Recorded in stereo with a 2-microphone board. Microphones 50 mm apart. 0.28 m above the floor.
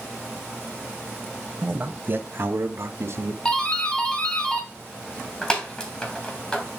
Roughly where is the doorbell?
Centre.